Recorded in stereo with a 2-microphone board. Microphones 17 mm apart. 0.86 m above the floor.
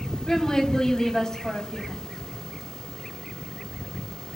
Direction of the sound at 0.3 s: 50° left (ahead or behind).